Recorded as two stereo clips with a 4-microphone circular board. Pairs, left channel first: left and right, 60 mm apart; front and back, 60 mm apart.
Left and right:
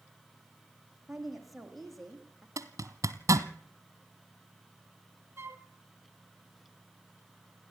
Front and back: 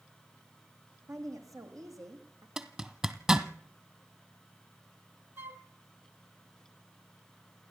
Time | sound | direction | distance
1.1 | a woman speaking | 175° right | 4.5 m
2.6 | a zipper | 105° right | 1.1 m
5.4 | a flute | 130° right | 1.1 m